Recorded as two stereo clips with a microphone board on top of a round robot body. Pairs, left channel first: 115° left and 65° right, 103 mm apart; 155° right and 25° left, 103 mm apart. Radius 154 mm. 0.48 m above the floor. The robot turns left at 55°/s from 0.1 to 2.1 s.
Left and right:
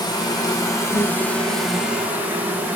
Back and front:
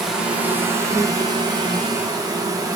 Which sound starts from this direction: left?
An insect, at 0.0 s.